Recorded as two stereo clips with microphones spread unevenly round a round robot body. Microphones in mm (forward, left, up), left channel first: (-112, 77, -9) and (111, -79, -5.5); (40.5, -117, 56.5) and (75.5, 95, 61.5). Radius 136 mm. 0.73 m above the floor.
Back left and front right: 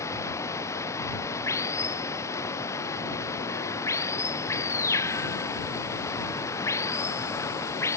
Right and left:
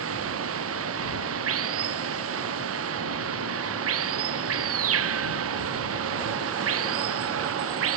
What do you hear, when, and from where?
0.0 s running water: 65° left